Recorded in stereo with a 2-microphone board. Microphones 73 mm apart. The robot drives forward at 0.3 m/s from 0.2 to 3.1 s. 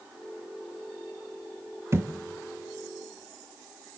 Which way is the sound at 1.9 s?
35° right (ahead or behind).